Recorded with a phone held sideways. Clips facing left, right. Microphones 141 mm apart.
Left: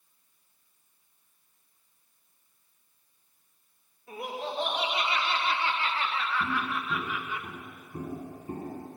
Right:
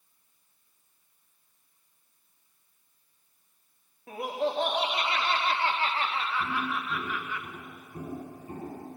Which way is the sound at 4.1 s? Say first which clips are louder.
Right 6 dB; 65° right (ahead or behind).